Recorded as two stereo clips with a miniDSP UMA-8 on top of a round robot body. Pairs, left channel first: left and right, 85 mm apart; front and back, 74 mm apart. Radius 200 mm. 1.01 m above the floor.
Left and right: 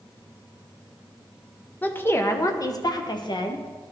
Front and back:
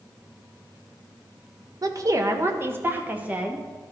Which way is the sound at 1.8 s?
155° left.